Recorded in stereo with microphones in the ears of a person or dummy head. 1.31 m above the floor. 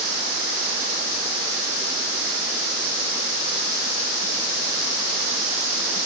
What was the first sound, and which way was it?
Only background noise.